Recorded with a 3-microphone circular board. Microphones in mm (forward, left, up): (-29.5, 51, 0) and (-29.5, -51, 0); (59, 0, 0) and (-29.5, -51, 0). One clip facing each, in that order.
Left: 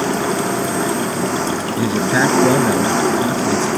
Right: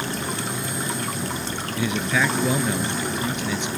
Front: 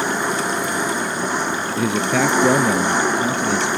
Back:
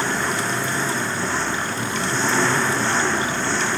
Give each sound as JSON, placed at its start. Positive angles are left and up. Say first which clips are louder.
{"t": 0.0, "sound": "an engine running", "louder": "left 11 dB, front 2 dB", "azimuth_deg": 105}
{"t": 1.8, "sound": "a man speaking", "louder": "left 6 dB, front 5 dB", "azimuth_deg": 35}